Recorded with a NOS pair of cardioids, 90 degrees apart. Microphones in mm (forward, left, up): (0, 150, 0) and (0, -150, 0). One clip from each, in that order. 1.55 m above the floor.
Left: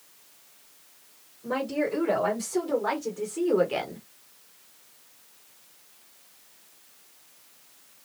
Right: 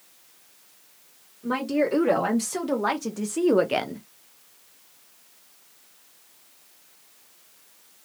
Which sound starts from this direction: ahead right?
A woman speaking, at 1.4 s.